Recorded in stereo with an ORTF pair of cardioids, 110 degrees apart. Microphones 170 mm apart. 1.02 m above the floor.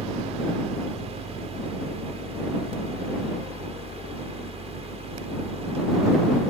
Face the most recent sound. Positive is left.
turn(degrees=-40)